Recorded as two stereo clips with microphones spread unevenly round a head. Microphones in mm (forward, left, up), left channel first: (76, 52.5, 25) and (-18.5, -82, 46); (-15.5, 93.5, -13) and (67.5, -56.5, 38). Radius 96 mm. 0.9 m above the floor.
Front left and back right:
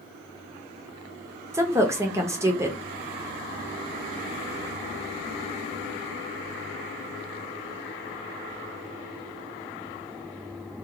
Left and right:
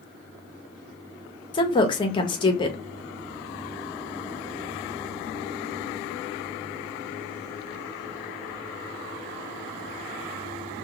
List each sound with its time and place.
1.5 s a woman speaking: 160° left, 0.8 m